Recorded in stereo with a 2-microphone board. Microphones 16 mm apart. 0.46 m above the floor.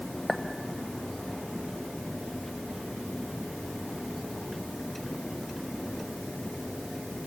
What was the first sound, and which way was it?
A clink, 5° left (ahead or behind).